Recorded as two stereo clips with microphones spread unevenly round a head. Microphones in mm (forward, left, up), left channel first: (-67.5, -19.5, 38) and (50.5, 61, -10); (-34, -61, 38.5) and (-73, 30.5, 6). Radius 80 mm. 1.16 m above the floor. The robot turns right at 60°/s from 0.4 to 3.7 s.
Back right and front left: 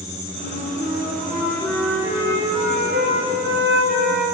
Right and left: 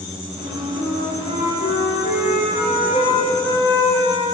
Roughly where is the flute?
Behind.